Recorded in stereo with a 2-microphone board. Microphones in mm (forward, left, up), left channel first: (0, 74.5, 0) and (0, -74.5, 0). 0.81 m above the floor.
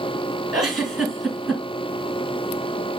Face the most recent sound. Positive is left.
turn(degrees=0)  # may be behind; listen again after turning